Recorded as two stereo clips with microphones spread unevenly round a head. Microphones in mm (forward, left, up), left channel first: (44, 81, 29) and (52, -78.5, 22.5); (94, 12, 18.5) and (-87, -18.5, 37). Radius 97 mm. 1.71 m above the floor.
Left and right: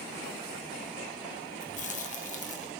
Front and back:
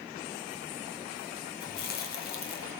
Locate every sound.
1.6 s chewing: 55° left, 1.4 m